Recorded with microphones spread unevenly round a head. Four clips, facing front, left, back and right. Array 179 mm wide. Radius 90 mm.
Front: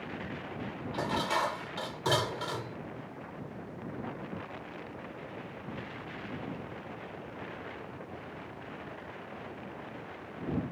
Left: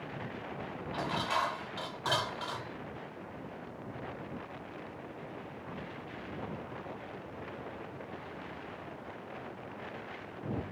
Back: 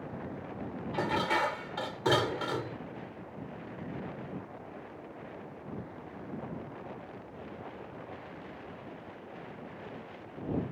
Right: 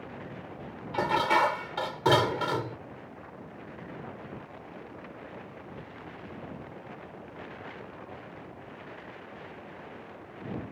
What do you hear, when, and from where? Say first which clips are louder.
0.9 s dishes clattering: right 9 dB, back 1 dB; 115° right